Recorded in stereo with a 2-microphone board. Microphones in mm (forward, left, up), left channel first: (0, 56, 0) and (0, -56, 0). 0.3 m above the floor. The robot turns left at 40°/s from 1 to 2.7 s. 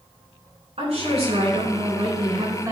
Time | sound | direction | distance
0.8 | a woman speaking | 80° right | 3 m